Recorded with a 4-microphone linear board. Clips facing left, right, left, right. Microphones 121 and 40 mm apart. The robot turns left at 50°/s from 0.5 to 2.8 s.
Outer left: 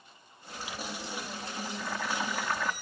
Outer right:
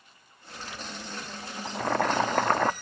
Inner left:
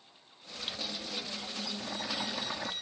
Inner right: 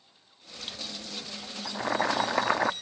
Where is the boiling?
65° right; by 2.7 s 115° right.